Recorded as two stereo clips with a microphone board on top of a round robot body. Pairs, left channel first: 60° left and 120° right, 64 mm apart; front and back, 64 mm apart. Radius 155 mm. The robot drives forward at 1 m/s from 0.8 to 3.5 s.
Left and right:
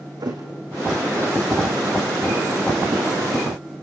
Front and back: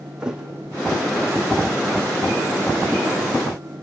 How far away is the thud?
About 3 m.